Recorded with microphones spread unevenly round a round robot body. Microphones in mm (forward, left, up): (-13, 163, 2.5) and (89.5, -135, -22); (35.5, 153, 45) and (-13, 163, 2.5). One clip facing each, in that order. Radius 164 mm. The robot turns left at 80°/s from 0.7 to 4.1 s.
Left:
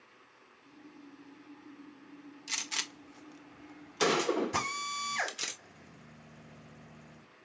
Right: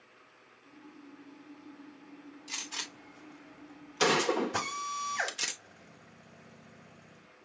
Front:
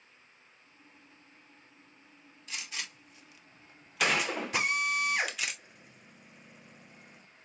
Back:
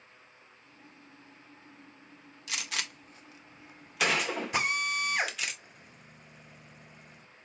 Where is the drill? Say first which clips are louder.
Even, front 1 dB; 95° left, 4 m.